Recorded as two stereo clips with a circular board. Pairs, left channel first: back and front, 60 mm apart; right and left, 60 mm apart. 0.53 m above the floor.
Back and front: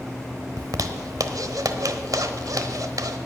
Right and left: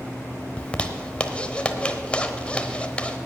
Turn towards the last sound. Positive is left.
turn(degrees=-20)